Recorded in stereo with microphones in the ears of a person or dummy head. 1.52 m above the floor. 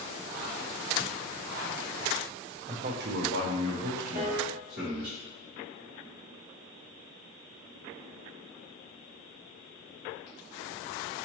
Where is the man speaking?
30° right (ahead or behind), 0.5 m; by 5.1 s 60° right (ahead or behind), 1.8 m.